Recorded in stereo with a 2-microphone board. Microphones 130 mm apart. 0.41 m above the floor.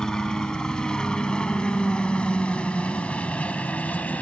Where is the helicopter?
5° left (ahead or behind); by 4.2 s 10° left (ahead or behind).